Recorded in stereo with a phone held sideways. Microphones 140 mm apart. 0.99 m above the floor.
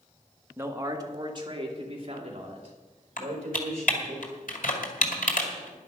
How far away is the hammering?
No hammering in this recording.